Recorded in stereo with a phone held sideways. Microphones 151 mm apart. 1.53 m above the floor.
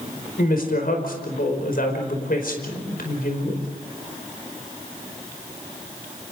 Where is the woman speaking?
70° left (ahead or behind), 5 m.